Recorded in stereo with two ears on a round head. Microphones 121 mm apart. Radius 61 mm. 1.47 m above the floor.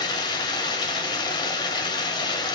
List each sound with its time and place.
0.0 s running water: 35° left (ahead or behind), 1.5 m